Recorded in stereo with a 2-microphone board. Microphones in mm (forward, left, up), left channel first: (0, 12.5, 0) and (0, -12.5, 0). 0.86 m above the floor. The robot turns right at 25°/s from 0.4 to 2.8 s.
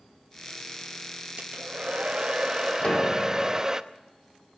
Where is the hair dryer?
60° right, 0.7 m; by 3.8 s 25° right, 0.7 m.